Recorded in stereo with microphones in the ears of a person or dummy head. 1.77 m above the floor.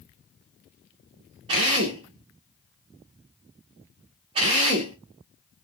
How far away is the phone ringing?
I don't hear a phone ringing.